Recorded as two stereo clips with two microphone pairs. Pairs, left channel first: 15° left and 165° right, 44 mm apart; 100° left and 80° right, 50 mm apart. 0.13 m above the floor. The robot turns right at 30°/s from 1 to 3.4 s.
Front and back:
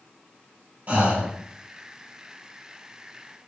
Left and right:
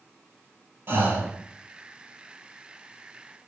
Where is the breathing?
115° right, 0.8 m; by 1.3 s 105° right, 0.8 m.